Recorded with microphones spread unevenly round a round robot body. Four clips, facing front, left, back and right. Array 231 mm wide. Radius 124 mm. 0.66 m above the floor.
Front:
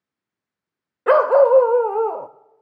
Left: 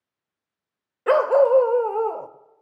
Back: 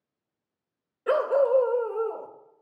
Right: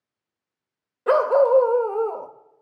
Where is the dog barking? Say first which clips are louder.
Even, front 9 dB; 15° left, 0.8 m.